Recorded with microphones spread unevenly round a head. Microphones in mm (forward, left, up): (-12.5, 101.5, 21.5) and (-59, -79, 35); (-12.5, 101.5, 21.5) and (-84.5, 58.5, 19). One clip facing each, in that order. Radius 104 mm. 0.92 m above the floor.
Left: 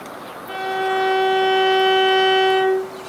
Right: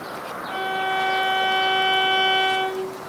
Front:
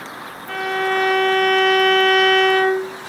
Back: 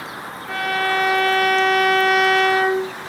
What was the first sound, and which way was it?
A violin, 125° left.